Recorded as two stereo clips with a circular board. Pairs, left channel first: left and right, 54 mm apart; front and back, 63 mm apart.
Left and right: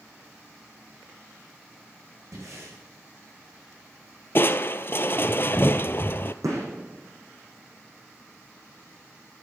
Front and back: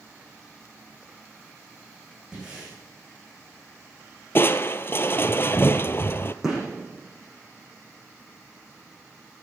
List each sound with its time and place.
2.3 s breathing: 105° right, 5.5 m
4.3 s crushing: 45° left, 0.5 m
6.4 s a gunshot: 95° right, 8 m